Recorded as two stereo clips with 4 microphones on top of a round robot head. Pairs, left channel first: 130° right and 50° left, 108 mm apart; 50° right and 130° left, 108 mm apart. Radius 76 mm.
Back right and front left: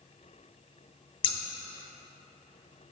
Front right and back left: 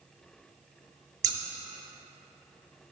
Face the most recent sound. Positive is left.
turn(degrees=-175)